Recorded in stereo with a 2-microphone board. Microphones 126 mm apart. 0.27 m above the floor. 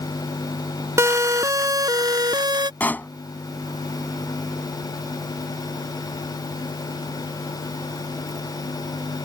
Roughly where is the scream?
No scream in this recording.